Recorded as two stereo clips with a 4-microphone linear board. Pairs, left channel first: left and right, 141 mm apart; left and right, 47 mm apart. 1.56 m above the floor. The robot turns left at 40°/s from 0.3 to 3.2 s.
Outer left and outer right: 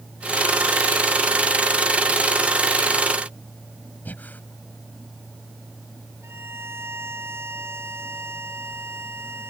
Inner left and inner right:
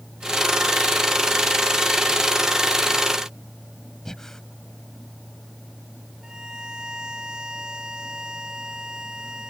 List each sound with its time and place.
4.0 s breathing: 10° left (ahead or behind)
6.2 s a violin: 15° right (ahead or behind)